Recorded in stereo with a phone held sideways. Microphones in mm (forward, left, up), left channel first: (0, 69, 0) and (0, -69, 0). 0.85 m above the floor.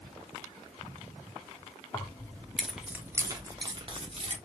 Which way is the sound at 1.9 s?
30° left (ahead or behind).